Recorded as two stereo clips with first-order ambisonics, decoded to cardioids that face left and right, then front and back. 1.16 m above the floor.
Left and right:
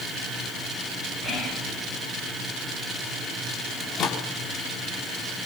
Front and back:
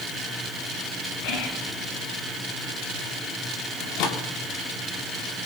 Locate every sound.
1.2 s whispering: 5° left, 9 m
3.8 s a microwave: 35° left, 2.5 m